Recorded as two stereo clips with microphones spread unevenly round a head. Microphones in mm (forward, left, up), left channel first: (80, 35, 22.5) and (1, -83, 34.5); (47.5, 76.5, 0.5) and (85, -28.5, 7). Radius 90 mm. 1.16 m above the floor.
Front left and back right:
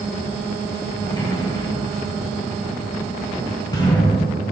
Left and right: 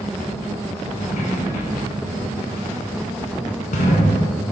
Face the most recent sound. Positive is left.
turn(degrees=130)